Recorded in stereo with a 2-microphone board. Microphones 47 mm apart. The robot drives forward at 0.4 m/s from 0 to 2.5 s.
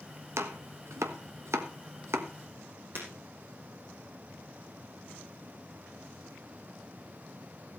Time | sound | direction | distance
0.4 | chopping | 70° right (ahead or behind) | 1.3 m
3.0 | breaking glass | 55° right (ahead or behind) | 5 m